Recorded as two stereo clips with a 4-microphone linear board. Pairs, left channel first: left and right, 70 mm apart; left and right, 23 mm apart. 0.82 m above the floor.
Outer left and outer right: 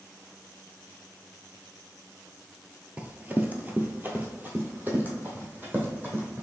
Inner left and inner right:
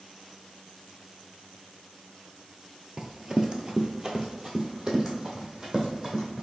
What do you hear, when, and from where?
3.0 s running footsteps: 20° right (ahead or behind), 0.8 m; by 6.4 s 30° right (ahead or behind), 2 m